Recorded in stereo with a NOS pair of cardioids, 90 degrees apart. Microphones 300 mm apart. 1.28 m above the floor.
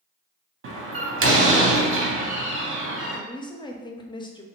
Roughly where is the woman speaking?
Ahead.